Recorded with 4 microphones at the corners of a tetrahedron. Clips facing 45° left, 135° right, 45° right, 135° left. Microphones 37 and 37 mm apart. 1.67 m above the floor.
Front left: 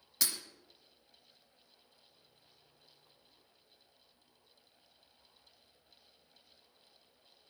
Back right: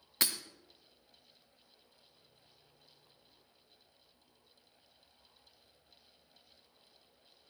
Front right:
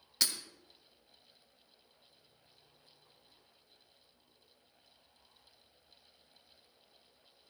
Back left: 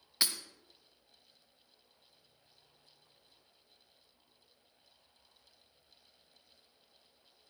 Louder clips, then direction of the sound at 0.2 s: Back right 3 dB, back left 1 dB; 165° right.